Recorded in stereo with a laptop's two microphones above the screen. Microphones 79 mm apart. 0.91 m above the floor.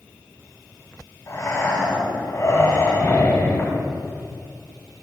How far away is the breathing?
About 6.5 m.